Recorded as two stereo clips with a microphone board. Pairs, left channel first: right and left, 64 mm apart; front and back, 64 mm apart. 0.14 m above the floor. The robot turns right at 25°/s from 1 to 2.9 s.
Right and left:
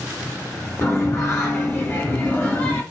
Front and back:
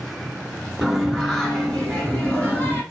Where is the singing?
85° right, 1.2 m; by 2.8 s 40° right, 1.2 m.